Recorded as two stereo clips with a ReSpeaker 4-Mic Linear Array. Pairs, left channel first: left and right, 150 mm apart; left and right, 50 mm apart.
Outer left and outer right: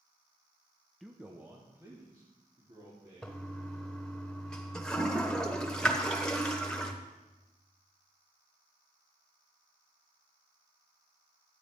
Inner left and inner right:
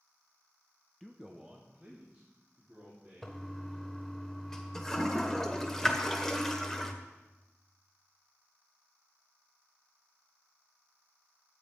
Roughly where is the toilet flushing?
Centre.